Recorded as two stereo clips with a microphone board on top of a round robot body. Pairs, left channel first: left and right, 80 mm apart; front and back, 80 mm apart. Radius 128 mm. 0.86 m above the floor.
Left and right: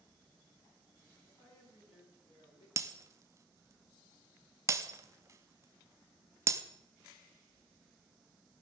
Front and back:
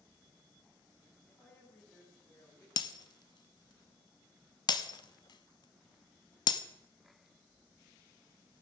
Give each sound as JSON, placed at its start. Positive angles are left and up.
{"t": 1.3, "sound": "a woman speaking", "azimuth_deg": 80, "distance_m": 7.5}
{"t": 2.8, "sound": "breaking glass", "azimuth_deg": -35, "distance_m": 0.7}